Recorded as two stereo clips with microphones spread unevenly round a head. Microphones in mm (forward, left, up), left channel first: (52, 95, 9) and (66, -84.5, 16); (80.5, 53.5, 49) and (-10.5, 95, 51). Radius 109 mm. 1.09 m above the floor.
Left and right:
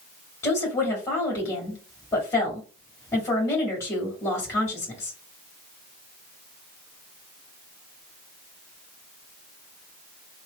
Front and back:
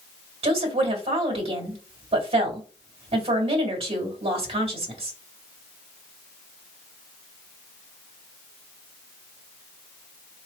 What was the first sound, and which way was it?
A woman speaking, 170° left.